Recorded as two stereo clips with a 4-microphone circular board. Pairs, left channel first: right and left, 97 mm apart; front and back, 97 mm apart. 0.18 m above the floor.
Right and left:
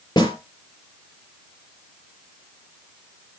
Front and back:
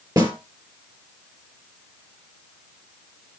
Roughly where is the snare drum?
Behind right.